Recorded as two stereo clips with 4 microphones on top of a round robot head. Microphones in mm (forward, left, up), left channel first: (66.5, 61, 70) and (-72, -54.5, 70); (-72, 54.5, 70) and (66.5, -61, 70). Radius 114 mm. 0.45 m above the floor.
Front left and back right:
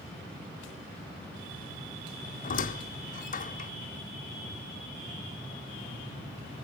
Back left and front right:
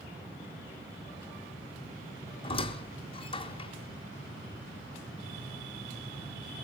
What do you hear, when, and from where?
2.4 s a squeak: 80° left, 1.0 m